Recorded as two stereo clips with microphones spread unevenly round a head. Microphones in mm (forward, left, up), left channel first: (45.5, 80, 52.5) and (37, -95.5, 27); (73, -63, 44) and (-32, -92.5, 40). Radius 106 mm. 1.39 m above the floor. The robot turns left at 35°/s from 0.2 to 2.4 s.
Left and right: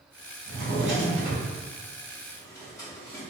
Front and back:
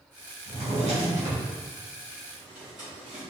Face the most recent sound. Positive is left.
turn(degrees=160)